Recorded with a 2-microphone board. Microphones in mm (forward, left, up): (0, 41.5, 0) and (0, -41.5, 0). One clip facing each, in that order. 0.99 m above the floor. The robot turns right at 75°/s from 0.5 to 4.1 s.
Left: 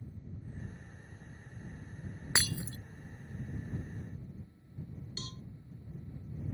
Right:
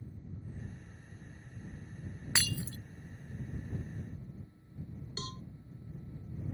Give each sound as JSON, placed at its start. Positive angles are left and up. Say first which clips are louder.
{"t": 2.4, "sound": "breaking glass", "louder": "left 1 dB", "side_deg": 20}
{"t": 5.2, "sound": "a cowbell", "louder": "right 6 dB", "side_deg": -40}